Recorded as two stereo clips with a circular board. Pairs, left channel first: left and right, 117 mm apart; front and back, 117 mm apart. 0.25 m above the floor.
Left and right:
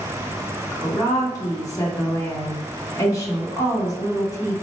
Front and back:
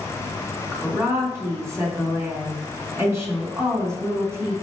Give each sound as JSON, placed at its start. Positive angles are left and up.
{"t": 0.7, "sound": "a woman speaking", "azimuth_deg": 130, "distance_m": 1.8}